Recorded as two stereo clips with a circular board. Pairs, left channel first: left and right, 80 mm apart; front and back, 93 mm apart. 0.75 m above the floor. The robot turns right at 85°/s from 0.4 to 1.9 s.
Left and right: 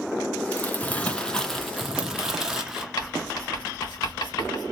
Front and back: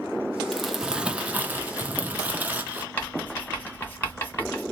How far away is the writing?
About 1.9 m.